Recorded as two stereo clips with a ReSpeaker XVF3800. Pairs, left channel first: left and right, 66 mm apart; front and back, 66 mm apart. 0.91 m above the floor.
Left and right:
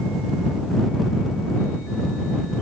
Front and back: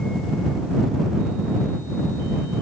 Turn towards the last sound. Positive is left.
No sound to turn to.